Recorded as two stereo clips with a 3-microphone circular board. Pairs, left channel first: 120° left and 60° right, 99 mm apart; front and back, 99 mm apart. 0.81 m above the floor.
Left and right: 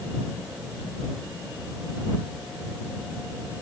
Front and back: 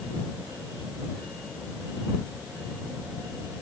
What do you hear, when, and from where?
Only background noise.